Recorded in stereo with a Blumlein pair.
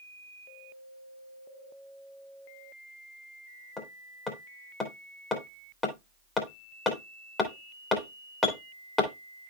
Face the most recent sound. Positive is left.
turn(degrees=10)